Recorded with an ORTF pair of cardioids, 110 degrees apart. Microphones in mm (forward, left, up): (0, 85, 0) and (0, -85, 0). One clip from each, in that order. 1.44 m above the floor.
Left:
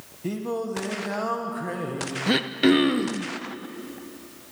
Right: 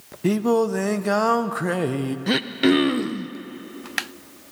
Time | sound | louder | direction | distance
0.2 | singing | right 9 dB | 55° right | 1.1 m
2.3 | throat clearing | right 1 dB | 5° right | 0.8 m